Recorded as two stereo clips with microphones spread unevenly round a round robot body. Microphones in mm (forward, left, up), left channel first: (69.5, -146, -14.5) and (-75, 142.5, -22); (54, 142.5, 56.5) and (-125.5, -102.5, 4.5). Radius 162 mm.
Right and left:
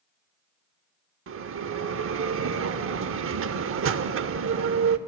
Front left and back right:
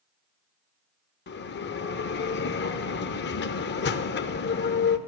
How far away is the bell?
About 0.7 m.